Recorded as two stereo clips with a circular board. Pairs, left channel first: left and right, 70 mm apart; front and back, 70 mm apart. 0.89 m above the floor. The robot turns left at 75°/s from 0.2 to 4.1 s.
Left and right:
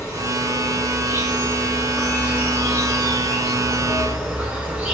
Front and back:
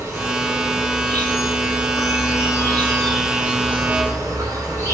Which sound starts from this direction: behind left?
An insect, at 0.0 s.